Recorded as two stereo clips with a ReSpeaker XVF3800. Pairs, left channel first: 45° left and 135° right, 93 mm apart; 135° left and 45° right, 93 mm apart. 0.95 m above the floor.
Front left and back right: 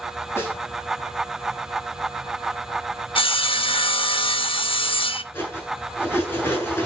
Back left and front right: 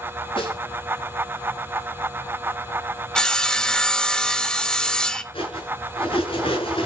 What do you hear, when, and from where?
0.4 s a snare drum: 110° left, 7 m
3.1 s sawing: 50° left, 0.9 m
5.3 s cutlery clinking: 110° left, 7.5 m